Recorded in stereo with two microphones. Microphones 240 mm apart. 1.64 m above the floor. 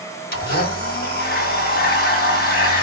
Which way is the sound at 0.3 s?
40° left (ahead or behind).